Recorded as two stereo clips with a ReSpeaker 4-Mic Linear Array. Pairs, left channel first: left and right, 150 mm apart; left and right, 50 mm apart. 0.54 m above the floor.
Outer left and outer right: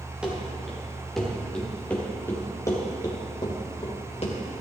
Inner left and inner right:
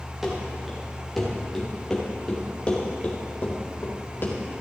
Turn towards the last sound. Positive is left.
turn(degrees=45)  # may be behind; listen again after turning